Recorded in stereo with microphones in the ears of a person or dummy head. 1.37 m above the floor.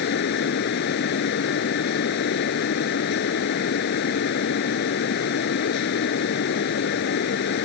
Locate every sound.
0.0 s a fan: 60° left (ahead or behind)